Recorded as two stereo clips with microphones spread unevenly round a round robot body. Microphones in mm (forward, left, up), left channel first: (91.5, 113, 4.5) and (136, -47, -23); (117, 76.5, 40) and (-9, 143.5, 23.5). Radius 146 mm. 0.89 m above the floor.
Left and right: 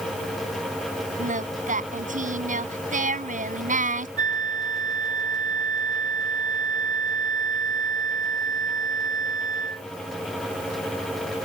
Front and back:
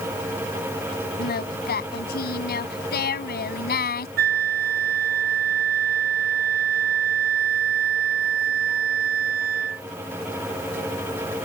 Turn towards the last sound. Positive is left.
turn(degrees=175)